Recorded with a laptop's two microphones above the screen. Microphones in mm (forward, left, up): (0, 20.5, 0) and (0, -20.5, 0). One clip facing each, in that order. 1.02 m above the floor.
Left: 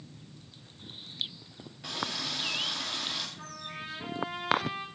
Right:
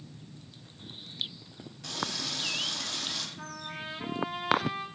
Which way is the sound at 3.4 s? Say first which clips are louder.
Right 2 dB; 20° right (ahead or behind).